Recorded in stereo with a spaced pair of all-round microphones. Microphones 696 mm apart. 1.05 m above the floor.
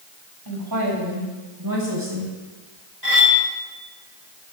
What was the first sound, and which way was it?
A woman speaking, 30° right (ahead or behind).